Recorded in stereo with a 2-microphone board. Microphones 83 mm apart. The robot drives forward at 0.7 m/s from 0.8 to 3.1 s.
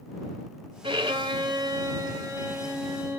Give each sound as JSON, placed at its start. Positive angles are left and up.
{"t": 0.8, "sound": "a violin", "side_deg": -80, "distance_m": 0.8}